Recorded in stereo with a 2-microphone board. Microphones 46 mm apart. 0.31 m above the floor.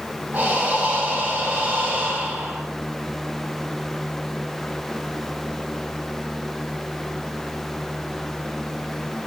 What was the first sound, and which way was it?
Breathing, 40° right (ahead or behind).